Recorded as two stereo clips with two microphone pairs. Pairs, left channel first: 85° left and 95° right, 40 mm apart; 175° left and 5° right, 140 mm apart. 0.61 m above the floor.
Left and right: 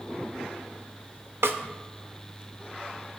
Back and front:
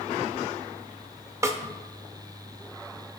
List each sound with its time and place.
1.4 s a snare drum: 80° right, 0.5 m